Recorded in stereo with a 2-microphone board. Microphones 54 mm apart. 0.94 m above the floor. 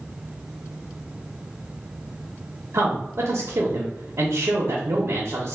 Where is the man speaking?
65° right (ahead or behind), 0.6 m.